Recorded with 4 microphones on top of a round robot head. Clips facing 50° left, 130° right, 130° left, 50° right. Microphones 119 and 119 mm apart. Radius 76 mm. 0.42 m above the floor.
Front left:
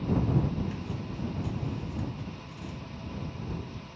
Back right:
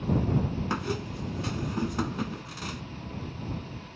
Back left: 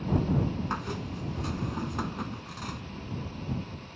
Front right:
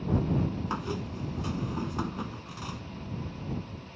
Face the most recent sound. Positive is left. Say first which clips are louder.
# back right 5 dB, front right 1 dB
turn(degrees=-130)